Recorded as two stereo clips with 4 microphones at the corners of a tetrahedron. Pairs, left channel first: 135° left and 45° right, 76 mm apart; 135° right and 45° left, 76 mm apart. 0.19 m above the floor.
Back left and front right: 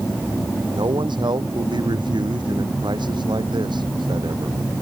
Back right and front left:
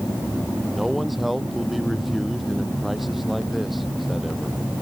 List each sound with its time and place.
0.7 s a man speaking: 45° right